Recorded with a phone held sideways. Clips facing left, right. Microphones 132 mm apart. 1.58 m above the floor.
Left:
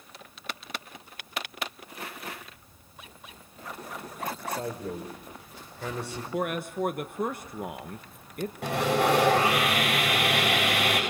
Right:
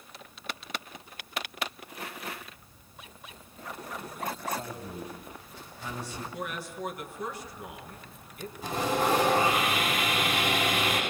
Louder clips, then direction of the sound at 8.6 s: Left 3 dB; 75° left (ahead or behind).